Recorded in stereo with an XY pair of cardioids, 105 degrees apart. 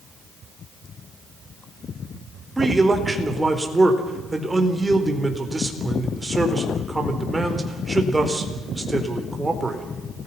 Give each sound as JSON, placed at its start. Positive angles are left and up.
{"t": 2.6, "sound": "a man speaking", "azimuth_deg": -15, "distance_m": 4.5}